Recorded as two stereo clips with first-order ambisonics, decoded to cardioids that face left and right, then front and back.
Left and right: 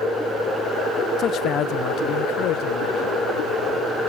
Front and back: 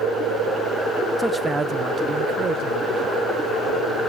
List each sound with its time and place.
1.2 s a man speaking: 100° left, 0.5 m; by 3.3 s 125° left, 1.5 m